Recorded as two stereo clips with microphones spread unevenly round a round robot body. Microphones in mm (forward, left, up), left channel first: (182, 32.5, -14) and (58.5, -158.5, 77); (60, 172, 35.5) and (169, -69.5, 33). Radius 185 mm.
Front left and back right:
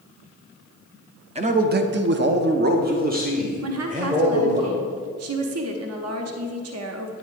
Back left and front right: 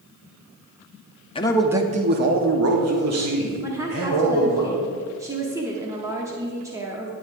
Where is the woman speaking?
140° right, 0.9 m.